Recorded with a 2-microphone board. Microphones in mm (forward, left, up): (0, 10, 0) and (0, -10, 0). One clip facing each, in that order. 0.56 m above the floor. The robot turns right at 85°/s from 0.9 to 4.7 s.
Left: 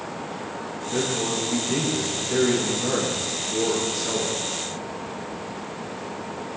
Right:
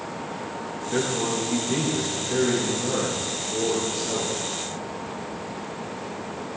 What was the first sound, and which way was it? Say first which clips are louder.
A man speaking: even; 130° right.